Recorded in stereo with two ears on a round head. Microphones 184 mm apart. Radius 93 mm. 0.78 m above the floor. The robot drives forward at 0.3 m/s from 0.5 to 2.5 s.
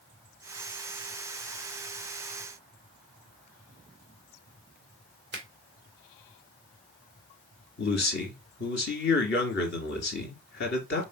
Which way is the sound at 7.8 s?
55° left (ahead or behind).